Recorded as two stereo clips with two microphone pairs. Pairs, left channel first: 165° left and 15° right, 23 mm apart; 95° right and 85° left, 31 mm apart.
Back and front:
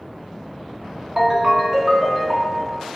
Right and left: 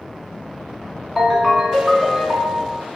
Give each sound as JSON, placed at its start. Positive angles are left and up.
{"t": 1.2, "sound": "a ringtone", "azimuth_deg": -25, "distance_m": 0.7}